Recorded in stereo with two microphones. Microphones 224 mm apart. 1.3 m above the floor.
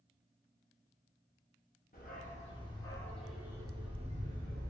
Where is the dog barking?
40° left (ahead or behind), 1.1 m; by 4.7 s 45° right (ahead or behind), 1.1 m.